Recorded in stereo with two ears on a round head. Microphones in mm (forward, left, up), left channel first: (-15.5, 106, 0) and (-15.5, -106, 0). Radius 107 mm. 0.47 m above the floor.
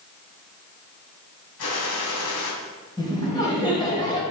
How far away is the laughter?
About 3.5 m.